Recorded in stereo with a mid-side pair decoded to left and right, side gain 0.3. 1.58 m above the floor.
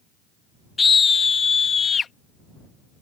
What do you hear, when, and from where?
0.8 s a scream: 45° left; by 2.1 s 65° left